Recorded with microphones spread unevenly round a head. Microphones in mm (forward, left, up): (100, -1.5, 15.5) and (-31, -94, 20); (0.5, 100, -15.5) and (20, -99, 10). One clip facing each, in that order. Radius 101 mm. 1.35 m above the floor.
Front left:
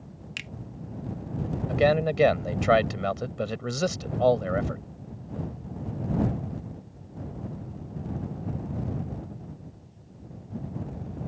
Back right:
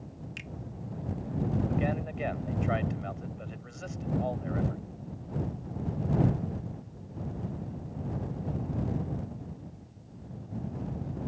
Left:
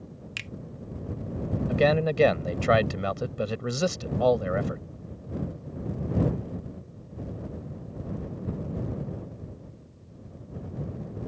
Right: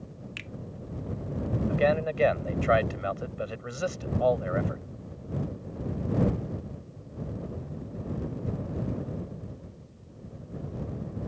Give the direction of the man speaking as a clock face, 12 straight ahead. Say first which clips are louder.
Front left 9 dB, left 3 dB; 10 o'clock.